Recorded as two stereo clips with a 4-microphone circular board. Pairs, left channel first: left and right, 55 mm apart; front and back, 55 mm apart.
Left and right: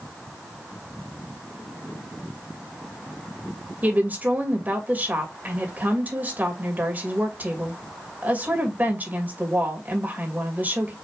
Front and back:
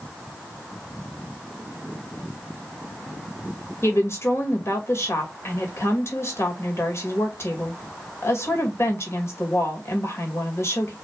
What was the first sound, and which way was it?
A woman speaking, 35° right.